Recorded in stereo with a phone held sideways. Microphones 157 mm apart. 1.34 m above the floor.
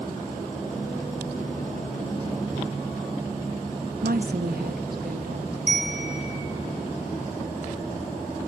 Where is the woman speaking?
70° right (ahead or behind), 1.0 m; by 5.6 s 80° right, 3 m.